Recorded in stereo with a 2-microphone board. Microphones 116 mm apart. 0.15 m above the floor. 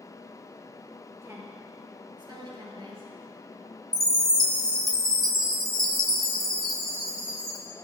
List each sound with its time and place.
1.2 s a woman speaking: 25° right (ahead or behind), 3.5 m; by 3.1 s 55° right (ahead or behind), 3.5 m
3.9 s a chime: 30° right (ahead or behind), 2.0 m